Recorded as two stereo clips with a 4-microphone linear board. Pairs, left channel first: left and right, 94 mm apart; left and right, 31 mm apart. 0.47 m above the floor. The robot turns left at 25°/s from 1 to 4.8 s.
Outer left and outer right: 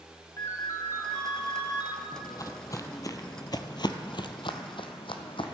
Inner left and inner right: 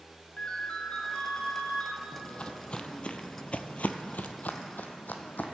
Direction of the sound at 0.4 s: 35° left (ahead or behind).